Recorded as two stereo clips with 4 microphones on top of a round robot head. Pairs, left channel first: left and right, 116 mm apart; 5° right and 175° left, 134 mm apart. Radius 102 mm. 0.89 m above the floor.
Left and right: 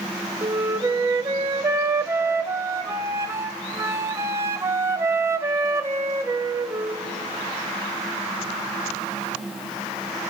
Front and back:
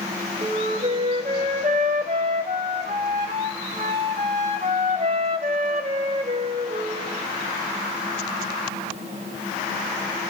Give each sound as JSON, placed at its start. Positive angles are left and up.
{"t": 0.4, "sound": "a flute", "azimuth_deg": -145, "distance_m": 0.8}